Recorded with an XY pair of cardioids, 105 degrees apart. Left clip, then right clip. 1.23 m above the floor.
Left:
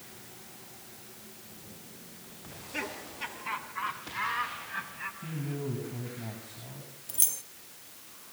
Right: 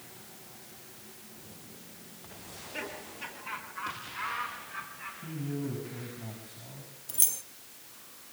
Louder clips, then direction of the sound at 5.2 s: Even; 20° left.